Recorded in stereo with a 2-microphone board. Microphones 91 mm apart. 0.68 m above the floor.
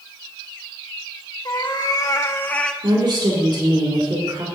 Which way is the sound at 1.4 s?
55° left (ahead or behind).